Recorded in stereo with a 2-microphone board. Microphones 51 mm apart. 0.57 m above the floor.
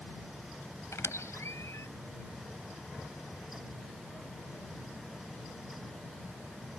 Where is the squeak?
70° left (ahead or behind).